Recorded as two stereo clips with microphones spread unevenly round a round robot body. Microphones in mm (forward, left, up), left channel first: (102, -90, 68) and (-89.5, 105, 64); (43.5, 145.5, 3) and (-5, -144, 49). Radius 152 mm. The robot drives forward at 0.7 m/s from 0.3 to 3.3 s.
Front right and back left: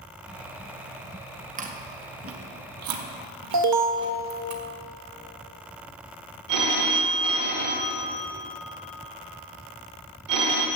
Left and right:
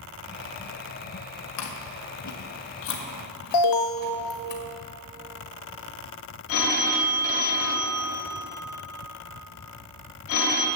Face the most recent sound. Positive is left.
turn(degrees=125)